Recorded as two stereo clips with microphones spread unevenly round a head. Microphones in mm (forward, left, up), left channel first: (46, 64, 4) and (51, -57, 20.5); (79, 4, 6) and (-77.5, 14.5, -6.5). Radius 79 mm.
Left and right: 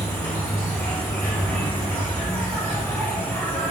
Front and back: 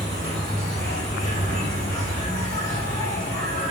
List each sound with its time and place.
0.0 s an insect: 15° left, 2 m